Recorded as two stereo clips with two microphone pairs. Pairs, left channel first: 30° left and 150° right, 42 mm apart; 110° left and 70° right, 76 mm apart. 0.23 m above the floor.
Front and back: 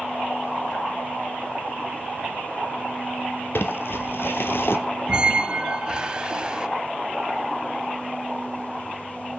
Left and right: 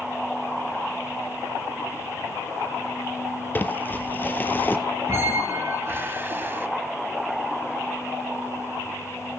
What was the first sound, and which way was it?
Crumpling, 45° left.